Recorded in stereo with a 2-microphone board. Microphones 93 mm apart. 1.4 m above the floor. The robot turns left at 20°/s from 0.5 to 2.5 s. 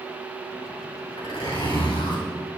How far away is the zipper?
About 7 m.